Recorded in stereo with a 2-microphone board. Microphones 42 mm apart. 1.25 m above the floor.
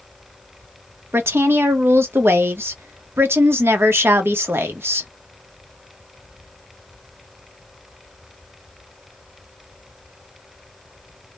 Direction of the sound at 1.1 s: 75° right (ahead or behind).